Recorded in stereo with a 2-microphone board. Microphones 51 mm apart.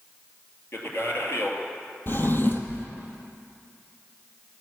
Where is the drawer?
45° left (ahead or behind), 1.1 m.